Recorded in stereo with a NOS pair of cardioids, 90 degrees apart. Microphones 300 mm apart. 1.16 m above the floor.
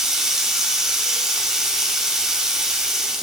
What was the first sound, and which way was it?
Running water, straight ahead.